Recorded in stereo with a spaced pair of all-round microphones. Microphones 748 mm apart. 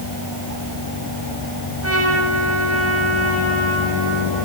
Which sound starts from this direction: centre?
A trumpet, at 1.8 s.